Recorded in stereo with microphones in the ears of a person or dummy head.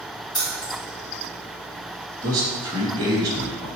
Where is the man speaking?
15° right (ahead or behind), 0.8 m.